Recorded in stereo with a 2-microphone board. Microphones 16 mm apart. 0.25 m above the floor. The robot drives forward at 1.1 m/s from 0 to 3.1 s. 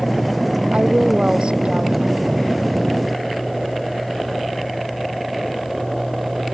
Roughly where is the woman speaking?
Right.